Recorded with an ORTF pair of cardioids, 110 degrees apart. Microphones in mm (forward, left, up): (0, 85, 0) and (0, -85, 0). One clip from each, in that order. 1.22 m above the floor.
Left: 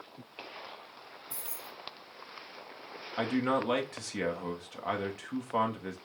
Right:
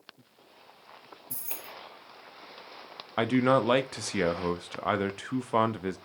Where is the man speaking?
35° right, 0.7 m.